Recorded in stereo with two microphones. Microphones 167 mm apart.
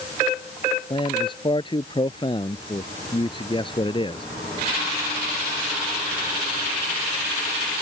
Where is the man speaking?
30° left (ahead or behind).